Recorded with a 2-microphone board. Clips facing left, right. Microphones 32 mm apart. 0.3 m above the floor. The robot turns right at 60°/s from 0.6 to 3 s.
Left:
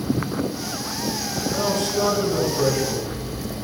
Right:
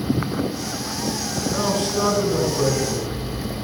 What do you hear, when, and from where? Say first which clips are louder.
1.5 s a man speaking: even; 85° right, 3.5 m; by 3.2 s 5° left, 3.5 m